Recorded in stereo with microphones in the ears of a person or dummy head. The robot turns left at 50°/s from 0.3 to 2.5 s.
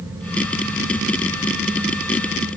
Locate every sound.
Only background noise.